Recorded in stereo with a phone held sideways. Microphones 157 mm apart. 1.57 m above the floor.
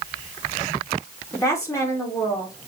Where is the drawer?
No drawer in this recording.